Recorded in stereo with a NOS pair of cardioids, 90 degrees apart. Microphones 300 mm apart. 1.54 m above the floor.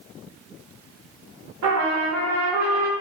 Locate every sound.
1.6 s a trumpet: 65° right, 0.9 m